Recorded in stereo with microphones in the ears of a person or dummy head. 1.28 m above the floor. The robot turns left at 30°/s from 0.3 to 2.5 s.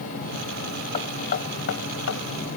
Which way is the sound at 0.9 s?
35° left (ahead or behind).